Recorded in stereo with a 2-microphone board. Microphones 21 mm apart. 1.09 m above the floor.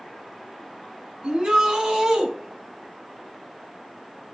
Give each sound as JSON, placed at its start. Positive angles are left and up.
{"t": 1.2, "sound": "a shout", "side_deg": -60, "distance_m": 8.5}